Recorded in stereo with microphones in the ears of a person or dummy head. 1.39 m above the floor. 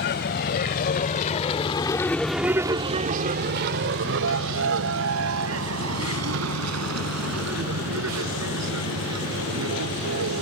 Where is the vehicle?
55° left (ahead or behind); by 10.4 s 80° right.